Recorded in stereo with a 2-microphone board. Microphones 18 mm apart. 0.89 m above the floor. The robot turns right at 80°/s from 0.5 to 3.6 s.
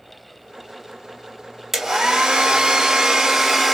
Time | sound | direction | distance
1.7 | a hair dryer | 160° right | 1.5 m